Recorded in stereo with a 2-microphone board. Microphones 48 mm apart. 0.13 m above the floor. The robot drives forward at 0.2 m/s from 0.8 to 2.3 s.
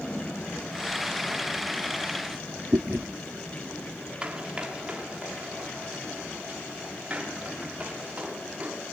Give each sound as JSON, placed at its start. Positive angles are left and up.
{"t": 2.7, "sound": "chewing", "side_deg": -60, "distance_m": 2.5}
{"t": 4.2, "sound": "running footsteps", "side_deg": -20, "distance_m": 3.0}